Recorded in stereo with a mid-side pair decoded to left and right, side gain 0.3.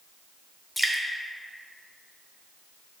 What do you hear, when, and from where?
0.8 s dripping: 10° left, 0.7 m